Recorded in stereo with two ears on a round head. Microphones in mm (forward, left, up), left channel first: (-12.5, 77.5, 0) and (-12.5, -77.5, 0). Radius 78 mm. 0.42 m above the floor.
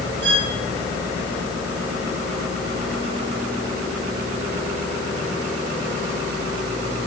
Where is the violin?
75° right (ahead or behind), 5.5 m.